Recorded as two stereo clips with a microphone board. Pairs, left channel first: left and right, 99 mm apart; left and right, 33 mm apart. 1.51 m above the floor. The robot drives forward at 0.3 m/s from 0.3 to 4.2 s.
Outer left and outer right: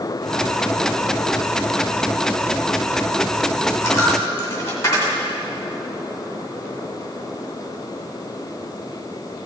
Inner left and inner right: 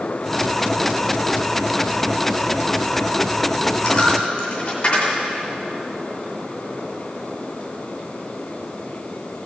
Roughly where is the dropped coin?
Left.